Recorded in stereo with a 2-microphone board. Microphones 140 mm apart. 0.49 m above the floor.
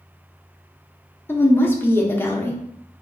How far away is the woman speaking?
About 0.7 m.